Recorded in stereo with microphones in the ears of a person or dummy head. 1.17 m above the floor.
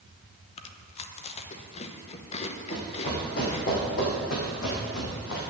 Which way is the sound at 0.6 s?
35° left (ahead or behind).